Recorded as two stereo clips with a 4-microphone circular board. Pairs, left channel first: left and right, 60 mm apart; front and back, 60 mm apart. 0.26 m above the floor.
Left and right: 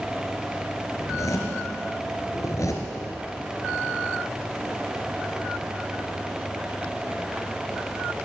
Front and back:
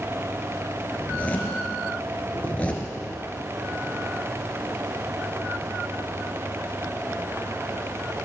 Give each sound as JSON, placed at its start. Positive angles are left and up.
{"t": 1.0, "sound": "a zipper", "azimuth_deg": 65, "distance_m": 2.5}